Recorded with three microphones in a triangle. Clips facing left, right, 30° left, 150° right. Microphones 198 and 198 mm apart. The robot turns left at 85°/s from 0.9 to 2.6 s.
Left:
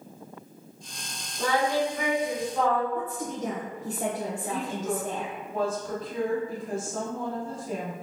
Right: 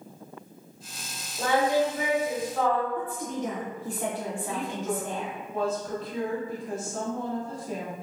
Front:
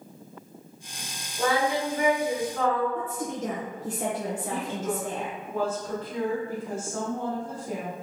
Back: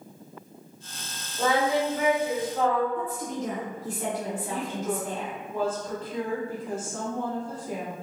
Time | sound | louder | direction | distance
1.4 | singing | right 2 dB, back 1 dB | 75° right | 1.6 m
3.0 | a woman speaking | even, even | 45° left | 0.8 m
4.5 | a woman speaking | left 1 dB, back 1 dB | 65° left | 2.0 m